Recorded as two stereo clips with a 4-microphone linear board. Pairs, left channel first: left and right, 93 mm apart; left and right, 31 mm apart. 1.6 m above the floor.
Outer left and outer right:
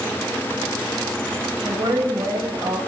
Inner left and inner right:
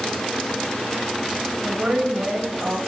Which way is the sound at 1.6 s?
65° right (ahead or behind).